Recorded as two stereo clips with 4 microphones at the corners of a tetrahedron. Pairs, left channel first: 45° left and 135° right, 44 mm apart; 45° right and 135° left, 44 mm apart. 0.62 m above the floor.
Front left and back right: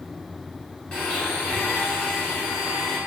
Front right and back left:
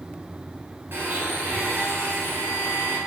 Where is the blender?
115° left, 1.6 m.